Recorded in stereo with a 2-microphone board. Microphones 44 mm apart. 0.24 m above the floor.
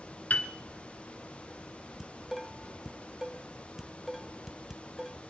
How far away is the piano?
About 1.8 m.